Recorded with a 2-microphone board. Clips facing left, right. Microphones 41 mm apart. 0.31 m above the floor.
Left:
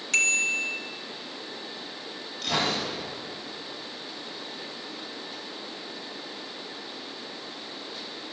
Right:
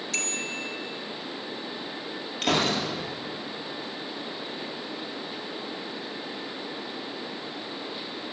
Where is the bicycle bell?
55° left (ahead or behind), 2.5 m.